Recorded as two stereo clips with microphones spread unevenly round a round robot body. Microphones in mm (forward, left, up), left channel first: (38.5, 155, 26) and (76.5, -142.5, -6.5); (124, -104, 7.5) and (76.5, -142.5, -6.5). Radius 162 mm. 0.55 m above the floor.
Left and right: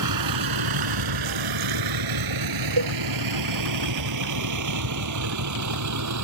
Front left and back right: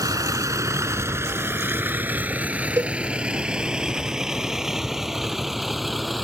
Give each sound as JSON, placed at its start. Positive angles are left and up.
{"t": 0.0, "sound": "a vehicle", "azimuth_deg": -120}
{"t": 2.8, "sound": "a cowbell", "azimuth_deg": -105}